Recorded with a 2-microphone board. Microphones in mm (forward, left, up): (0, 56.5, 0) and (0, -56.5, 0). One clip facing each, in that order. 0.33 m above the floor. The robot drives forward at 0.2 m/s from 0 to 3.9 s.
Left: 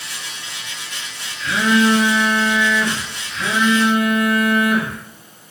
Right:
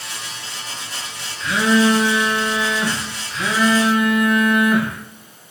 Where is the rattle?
I don't hear a rattle.